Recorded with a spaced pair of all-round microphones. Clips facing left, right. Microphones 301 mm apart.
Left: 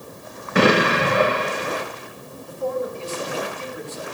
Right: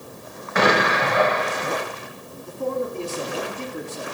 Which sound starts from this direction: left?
An explosion, at 0.6 s.